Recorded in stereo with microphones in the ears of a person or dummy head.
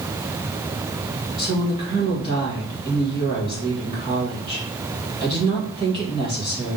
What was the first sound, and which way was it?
A woman speaking, 25° right (ahead or behind).